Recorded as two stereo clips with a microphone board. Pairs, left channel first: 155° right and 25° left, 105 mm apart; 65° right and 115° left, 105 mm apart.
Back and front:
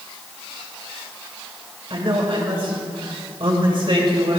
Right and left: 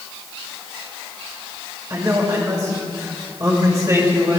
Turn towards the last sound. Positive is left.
turn(degrees=50)